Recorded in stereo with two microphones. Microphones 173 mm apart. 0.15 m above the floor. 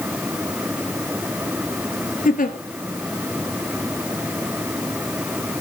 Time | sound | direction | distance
2.2 | a giggle | 55° left (ahead or behind) | 1.3 m